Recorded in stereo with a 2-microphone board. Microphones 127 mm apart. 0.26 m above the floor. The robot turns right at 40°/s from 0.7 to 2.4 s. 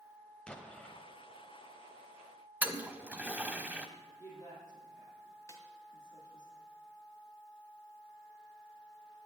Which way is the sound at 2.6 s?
15° right (ahead or behind).